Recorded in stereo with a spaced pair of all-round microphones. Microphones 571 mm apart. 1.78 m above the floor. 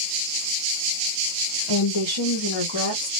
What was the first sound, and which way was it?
A woman speaking, 50° left (ahead or behind).